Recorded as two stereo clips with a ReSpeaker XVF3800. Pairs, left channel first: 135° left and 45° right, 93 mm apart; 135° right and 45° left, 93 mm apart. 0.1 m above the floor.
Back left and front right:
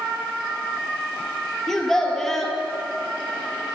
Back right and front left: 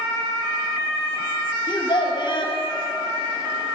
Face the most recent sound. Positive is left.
turn(degrees=-140)